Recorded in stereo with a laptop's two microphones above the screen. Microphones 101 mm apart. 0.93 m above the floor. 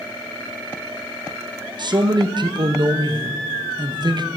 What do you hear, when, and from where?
1.8 s a man speaking: 50° right (ahead or behind), 0.9 m